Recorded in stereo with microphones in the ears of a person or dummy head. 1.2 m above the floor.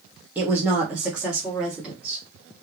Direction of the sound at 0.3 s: 5° right (ahead or behind).